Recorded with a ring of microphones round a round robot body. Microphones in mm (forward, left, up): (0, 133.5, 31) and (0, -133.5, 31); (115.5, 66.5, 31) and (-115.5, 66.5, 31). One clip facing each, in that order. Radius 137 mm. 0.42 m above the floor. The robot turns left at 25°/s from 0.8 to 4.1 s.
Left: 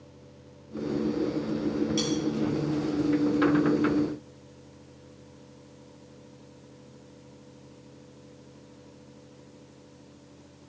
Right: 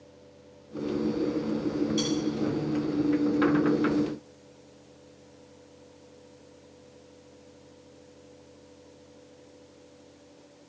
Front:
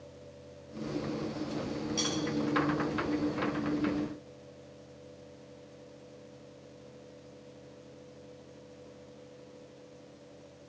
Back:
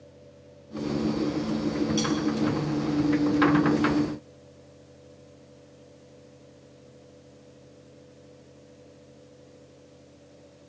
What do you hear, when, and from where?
2.0 s cutlery clinking: 135° left, 6 m; by 2.1 s 130° left, 6 m